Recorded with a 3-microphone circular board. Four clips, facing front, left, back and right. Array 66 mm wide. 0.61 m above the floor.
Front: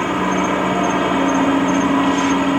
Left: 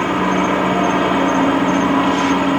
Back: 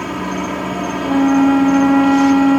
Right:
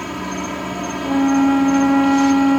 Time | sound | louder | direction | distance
0.0 | an insect | left 9 dB, front 4 dB | 65° left | ?
1.0 | a flute | left 1 dB, back 3 dB | 150° right | ?